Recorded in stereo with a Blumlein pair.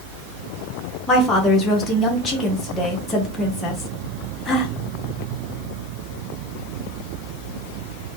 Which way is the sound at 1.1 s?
15° left.